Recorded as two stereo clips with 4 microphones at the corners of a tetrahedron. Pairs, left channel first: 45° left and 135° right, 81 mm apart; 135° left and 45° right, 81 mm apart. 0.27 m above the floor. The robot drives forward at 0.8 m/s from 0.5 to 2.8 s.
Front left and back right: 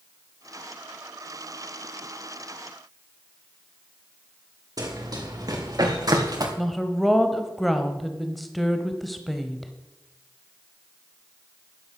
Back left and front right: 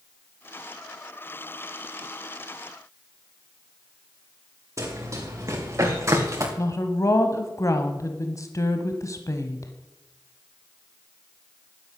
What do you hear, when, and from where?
4.8 s running footsteps: 95° right, 4 m; by 6.5 s 100° right, 3 m
6.6 s a woman speaking: 135° left, 1.1 m